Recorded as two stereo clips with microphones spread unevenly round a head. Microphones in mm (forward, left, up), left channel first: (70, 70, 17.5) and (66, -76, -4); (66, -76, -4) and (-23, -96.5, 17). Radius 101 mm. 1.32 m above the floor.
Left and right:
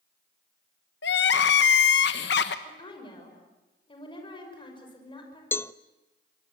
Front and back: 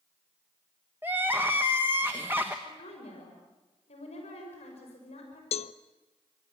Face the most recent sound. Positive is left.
turn(degrees=15)